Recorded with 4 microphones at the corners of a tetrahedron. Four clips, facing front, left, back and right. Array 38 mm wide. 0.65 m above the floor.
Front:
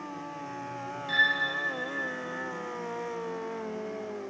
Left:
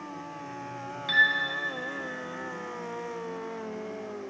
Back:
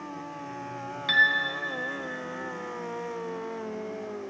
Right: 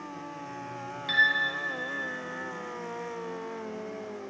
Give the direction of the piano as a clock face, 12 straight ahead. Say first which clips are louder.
Left 1 dB, back 3 dB; 6 o'clock.